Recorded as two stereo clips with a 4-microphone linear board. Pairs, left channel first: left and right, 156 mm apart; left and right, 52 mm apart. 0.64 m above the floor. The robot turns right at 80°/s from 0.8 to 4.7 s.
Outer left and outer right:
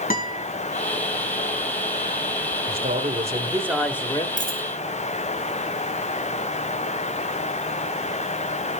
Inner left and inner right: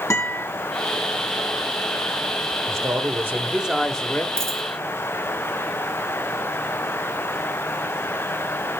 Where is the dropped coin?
55° right (ahead or behind), 4 m; by 4.6 s 75° right (ahead or behind), 4 m.